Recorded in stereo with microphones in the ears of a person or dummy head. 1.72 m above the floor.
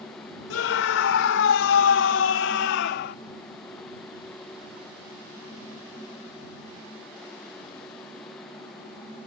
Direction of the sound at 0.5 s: 85° left.